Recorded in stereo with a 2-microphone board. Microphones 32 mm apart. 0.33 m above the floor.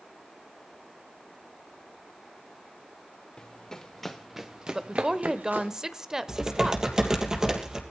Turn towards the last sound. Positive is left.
turn(degrees=-20)  # may be behind; listen again after turning